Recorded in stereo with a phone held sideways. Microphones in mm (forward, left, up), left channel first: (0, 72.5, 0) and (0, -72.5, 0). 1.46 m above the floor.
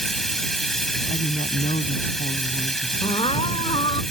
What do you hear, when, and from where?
0.0 s running water: centre (ahead or behind)
1.1 s a woman speaking: 60° left (ahead or behind)
3.0 s crying: 40° left (ahead or behind)